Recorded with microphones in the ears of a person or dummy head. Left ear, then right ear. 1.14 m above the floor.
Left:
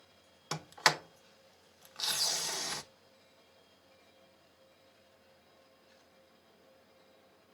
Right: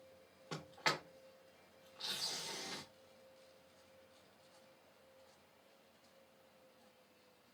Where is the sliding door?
75° left (ahead or behind), 0.6 m.